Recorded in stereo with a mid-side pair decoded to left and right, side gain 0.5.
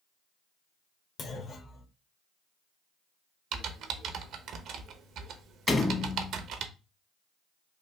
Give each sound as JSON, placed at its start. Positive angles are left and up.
{"t": 1.2, "sound": "a clunk", "azimuth_deg": 45, "distance_m": 0.9}
{"t": 3.5, "sound": "typing on a keyboard", "azimuth_deg": -65, "distance_m": 0.6}
{"t": 5.7, "sound": "a door slam", "azimuth_deg": 30, "distance_m": 0.9}